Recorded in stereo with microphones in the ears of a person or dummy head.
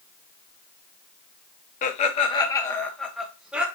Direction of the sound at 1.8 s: 45° left (ahead or behind).